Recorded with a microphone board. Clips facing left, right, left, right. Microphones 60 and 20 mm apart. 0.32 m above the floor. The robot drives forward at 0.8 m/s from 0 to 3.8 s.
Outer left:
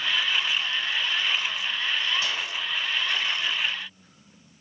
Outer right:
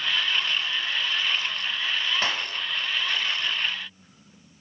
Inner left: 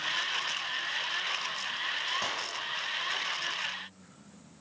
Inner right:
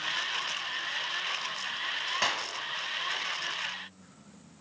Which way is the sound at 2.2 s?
45° right (ahead or behind).